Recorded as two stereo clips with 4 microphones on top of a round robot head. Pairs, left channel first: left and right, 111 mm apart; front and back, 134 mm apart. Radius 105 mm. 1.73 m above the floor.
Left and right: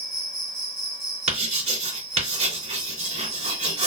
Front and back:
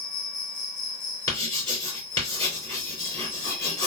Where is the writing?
70° right, 3 m.